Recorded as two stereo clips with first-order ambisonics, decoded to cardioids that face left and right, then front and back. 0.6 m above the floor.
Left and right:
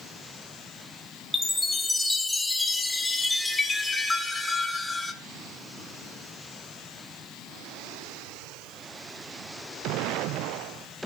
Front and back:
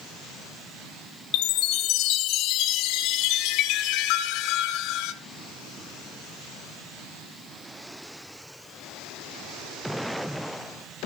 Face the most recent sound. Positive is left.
turn(degrees=10)